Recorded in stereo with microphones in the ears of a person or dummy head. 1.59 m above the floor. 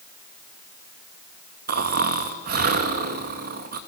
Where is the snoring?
55° right (ahead or behind), 2.0 m.